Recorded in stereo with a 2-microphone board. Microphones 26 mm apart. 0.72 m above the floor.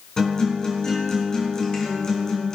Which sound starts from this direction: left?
A guitar, at 0.2 s.